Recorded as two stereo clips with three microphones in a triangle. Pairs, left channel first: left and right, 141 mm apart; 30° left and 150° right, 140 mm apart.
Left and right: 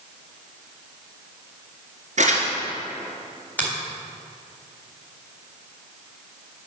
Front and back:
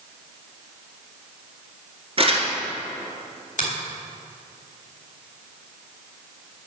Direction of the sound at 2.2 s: 110° right.